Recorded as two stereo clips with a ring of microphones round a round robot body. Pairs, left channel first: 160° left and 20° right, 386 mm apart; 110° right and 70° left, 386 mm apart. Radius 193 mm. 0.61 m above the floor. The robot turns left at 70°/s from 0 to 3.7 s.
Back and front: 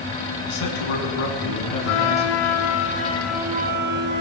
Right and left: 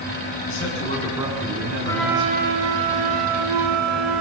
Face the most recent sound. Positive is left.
turn(degrees=40)